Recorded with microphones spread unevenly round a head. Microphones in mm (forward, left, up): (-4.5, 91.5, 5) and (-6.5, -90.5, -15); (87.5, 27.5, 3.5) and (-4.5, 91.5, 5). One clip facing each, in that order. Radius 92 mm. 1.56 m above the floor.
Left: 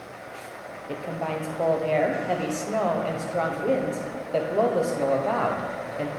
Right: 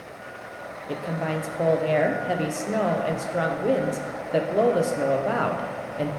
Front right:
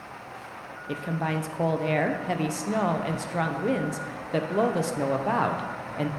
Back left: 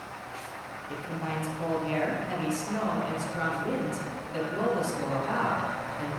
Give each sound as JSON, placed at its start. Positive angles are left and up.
{"t": 0.9, "sound": "a woman speaking", "azimuth_deg": -15, "distance_m": 0.6}